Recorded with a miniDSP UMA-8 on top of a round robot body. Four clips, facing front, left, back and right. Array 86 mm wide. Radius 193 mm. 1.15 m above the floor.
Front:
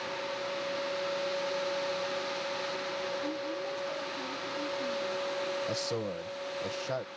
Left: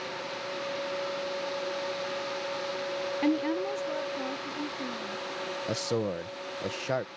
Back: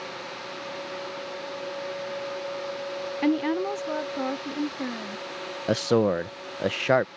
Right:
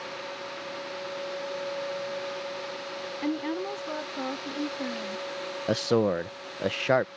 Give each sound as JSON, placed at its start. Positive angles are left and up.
{"t": 3.2, "sound": "a woman speaking", "azimuth_deg": 165}
{"t": 5.7, "sound": "a man speaking", "azimuth_deg": -155}